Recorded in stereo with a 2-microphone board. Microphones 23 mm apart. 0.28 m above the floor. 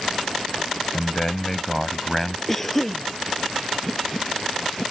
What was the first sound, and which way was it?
A man speaking, 20° left (ahead or behind).